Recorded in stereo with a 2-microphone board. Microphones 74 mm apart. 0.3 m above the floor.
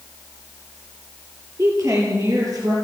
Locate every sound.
1.6 s a woman speaking: 40° right (ahead or behind), 6.5 m; by 2.7 s 55° right (ahead or behind), 7 m